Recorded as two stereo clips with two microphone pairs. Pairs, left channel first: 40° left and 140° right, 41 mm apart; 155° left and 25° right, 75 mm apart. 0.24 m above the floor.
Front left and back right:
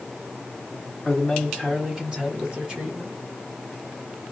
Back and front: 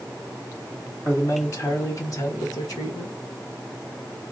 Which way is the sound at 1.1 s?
130° left.